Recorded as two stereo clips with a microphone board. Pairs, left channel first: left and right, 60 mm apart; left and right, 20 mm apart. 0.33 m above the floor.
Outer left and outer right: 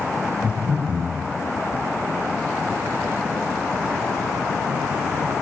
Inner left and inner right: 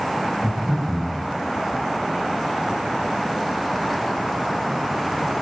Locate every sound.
0.4 s breathing: 30° left (ahead or behind), 0.7 m